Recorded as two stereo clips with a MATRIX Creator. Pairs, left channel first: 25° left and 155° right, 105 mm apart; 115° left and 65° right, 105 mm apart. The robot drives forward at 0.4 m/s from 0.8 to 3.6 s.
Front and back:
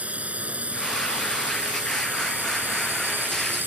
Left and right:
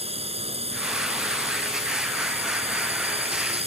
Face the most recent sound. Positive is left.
turn(degrees=-85)